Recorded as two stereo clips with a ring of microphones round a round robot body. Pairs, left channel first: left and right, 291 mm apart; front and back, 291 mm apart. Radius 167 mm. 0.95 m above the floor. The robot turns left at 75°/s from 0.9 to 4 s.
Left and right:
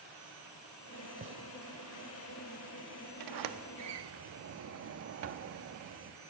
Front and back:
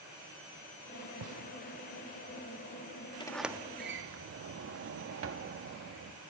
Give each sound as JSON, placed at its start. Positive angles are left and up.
{"t": 1.2, "sound": "a gunshot", "azimuth_deg": -150, "distance_m": 1.7}
{"t": 3.2, "sound": "a sliding door", "azimuth_deg": -75, "distance_m": 1.3}